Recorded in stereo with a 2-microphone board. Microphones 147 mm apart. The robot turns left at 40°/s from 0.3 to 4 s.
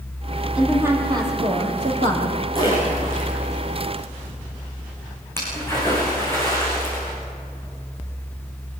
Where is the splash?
40° right (ahead or behind), 8 m; by 7.2 s 15° left (ahead or behind), 8 m.